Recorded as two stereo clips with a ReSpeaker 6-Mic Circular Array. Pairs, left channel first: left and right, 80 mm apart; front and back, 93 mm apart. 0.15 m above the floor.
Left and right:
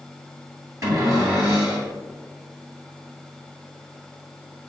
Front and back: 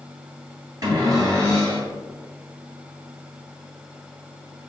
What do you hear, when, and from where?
0.8 s a cupboard door: 135° right, 1.5 m